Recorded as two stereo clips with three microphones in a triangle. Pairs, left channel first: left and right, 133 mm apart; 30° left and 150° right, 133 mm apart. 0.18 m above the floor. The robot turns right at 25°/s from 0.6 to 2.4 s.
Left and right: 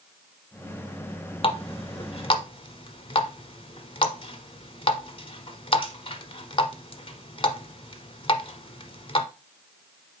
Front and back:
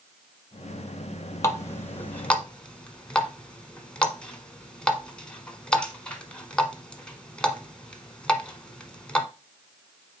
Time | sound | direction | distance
1.4 | a running tap | 85° left | 1.1 m